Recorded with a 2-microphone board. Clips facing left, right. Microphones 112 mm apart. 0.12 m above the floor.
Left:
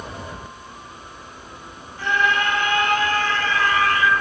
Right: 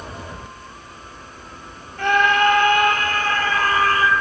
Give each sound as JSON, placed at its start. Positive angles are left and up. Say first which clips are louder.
{"t": 2.0, "sound": "a scream", "louder": "right 5 dB", "side_deg": -60, "distance_m": 3.5}